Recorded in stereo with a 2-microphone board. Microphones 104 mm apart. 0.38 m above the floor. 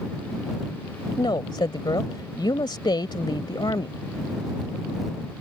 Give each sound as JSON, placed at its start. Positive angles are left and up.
{"t": 1.2, "sound": "a woman speaking", "side_deg": 50}